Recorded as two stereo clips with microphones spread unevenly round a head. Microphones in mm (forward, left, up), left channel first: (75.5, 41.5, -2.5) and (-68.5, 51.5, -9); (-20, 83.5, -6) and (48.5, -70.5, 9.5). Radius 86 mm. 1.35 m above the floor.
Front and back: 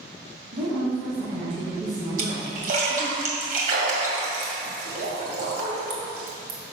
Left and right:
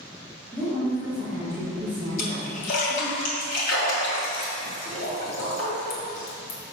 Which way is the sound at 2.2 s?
155° left.